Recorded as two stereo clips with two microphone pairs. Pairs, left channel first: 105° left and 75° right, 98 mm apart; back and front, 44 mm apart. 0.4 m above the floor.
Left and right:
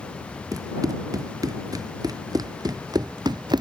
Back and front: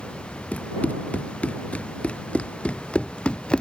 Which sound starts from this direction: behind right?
Running footsteps, at 0.5 s.